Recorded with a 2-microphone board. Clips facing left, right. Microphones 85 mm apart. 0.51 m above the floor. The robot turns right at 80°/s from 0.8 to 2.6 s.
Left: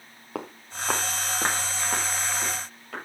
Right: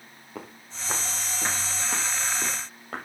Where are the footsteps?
70° left (ahead or behind), 2.5 m; by 3.0 s 35° right (ahead or behind), 6 m.